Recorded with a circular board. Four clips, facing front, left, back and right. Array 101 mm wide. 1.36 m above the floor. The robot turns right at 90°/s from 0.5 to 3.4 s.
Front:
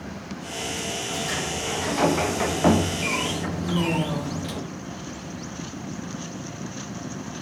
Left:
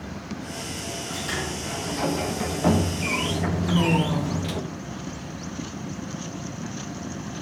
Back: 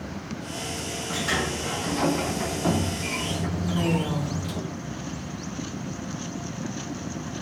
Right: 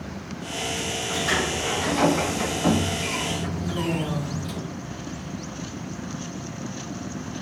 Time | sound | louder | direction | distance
1.1 | a sliding door | right 6 dB, back 4 dB | 135° right | 0.9 m
3.6 | a woman speaking | left 5 dB, front 1 dB | 65° left | 4.5 m